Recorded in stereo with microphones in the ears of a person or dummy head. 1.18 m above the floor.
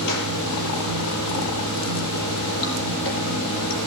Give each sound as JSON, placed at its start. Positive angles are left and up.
{"t": 0.0, "sound": "running water", "side_deg": 60, "distance_m": 5.5}